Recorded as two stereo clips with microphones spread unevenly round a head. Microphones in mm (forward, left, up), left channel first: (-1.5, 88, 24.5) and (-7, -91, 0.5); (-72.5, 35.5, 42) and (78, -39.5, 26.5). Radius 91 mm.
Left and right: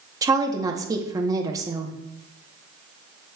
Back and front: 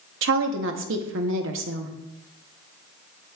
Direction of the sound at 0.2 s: 20° right.